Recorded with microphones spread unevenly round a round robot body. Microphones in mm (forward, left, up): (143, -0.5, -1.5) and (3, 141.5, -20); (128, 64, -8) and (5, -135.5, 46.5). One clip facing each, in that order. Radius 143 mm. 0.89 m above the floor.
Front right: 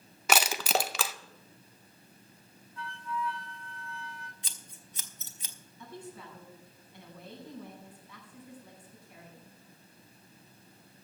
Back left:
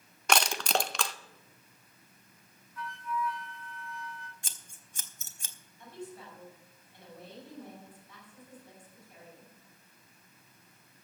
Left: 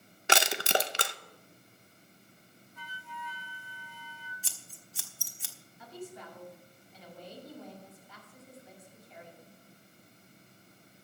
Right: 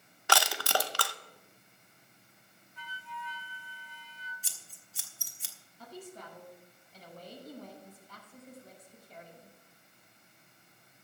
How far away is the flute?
About 1.5 m.